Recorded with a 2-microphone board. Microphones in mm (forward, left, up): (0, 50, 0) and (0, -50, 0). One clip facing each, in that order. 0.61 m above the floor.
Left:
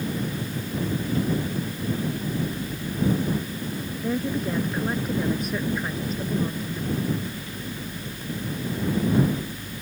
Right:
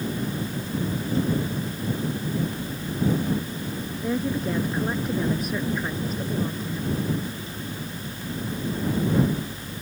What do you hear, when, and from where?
4.0 s a woman speaking: centre (ahead or behind)